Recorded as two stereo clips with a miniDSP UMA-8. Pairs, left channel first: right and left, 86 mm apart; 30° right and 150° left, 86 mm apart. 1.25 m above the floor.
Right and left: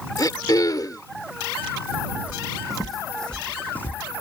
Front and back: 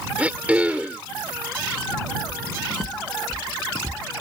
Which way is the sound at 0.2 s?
135° right.